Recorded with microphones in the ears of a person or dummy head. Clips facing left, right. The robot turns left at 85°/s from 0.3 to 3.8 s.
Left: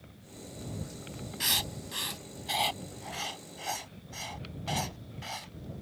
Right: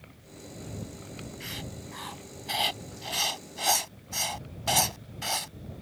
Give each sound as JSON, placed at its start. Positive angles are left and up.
{"t": 1.4, "sound": "writing", "side_deg": 80}